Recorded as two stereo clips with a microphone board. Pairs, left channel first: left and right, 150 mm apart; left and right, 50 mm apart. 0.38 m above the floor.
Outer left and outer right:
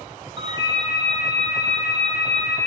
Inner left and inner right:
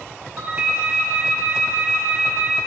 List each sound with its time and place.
0.4 s a ringtone: 30° right (ahead or behind), 0.8 m